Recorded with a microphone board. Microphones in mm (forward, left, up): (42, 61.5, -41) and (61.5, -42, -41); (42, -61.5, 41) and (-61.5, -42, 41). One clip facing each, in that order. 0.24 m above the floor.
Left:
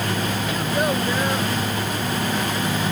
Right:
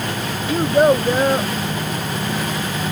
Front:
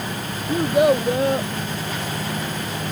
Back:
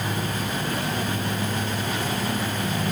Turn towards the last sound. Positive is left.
turn(degrees=-25)